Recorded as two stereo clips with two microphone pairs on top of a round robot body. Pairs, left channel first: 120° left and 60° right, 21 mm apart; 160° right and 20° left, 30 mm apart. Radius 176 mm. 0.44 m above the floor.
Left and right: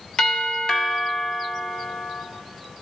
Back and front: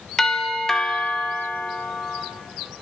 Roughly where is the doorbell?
Behind left.